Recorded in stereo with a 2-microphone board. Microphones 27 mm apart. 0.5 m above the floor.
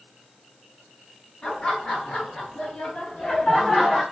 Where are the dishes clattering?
No dishes clattering in this recording.